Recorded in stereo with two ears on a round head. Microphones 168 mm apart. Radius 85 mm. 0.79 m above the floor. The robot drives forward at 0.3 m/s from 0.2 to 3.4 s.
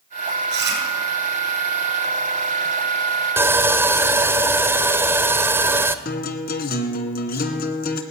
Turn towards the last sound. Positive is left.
turn(degrees=45)  # may be behind; listen again after turning